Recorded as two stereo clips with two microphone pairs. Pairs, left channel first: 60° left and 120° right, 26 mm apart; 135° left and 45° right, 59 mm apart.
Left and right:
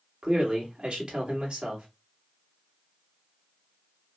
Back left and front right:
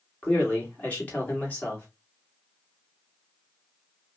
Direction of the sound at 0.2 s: 160° right.